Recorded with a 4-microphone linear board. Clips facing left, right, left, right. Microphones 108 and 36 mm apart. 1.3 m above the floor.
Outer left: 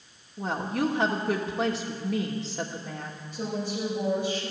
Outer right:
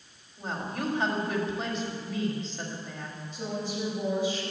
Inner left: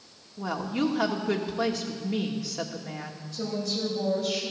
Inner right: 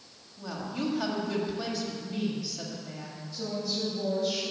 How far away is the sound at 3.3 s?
About 8 m.